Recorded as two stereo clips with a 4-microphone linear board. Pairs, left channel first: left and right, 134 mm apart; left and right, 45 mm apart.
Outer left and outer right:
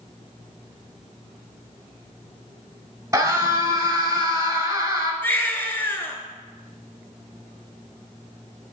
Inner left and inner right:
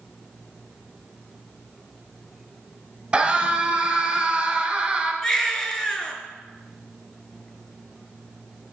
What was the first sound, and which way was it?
A scream, 20° right (ahead or behind).